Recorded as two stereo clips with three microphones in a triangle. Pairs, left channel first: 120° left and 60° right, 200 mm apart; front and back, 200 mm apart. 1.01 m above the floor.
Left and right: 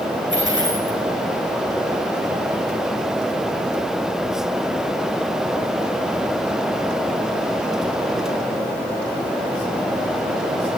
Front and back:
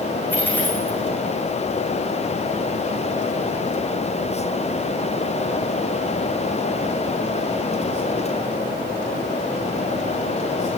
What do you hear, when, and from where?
0.3 s a dropped coin: 80° right, 6.5 m